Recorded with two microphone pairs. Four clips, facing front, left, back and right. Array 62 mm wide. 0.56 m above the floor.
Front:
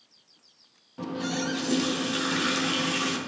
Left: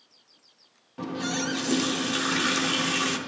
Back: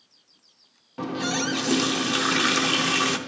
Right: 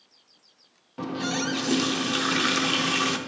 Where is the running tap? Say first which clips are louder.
Right 1 dB, back 3 dB; 170° right, 0.7 m.